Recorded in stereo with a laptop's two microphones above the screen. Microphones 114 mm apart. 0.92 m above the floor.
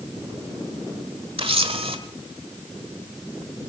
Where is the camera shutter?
55° right (ahead or behind), 1.2 m.